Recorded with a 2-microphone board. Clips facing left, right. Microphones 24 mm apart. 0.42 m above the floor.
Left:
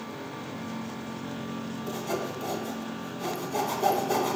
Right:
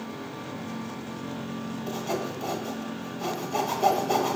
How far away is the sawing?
About 1.1 m.